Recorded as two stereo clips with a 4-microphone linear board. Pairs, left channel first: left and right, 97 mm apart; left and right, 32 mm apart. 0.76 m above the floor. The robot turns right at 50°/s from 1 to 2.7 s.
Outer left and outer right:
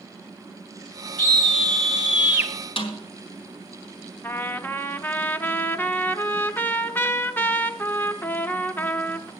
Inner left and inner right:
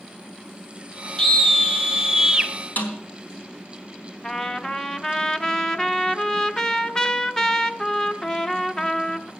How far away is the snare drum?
About 1.8 m.